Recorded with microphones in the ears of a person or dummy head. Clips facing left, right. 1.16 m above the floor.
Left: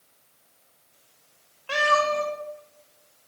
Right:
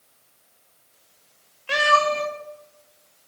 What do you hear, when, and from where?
1.7 s a cat meowing: 25° right (ahead or behind), 0.7 m